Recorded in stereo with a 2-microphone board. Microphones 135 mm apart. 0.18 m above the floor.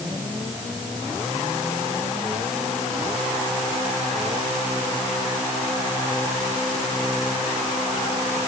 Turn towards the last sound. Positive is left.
No sound to turn to.